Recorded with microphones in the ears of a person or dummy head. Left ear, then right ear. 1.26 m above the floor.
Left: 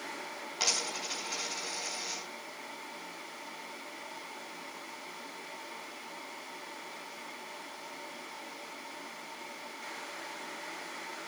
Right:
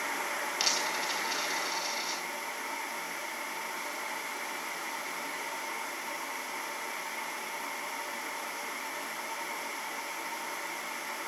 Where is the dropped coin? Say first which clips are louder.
Even; 25° right (ahead or behind), 4.5 m.